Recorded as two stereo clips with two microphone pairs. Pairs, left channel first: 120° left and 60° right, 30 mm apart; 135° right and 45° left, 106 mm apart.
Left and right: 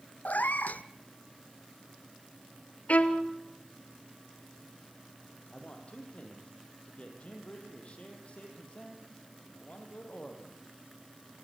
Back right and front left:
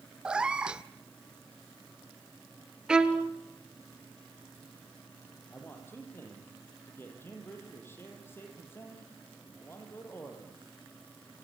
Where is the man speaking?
160° left, 5.5 m.